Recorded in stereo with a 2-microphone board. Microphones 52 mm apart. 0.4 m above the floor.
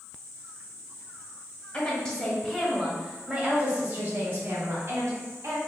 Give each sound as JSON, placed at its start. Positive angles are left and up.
{"t": 1.7, "sound": "a woman speaking", "side_deg": 25, "distance_m": 1.3}